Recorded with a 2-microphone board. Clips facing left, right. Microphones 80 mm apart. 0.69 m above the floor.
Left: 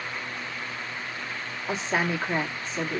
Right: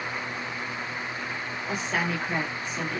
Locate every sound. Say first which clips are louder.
1.7 s a woman speaking: left 2 dB; 25° left (ahead or behind), 1.2 m